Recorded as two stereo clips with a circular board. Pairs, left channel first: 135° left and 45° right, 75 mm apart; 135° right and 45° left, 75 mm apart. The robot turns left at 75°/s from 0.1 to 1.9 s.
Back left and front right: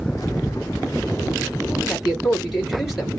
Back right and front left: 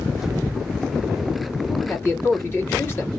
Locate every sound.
1.7 s a man speaking: 110° right, 1.9 m; by 3.2 s 130° right, 1.9 m